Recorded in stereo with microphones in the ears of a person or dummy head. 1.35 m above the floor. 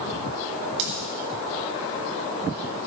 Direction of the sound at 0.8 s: 60° right (ahead or behind).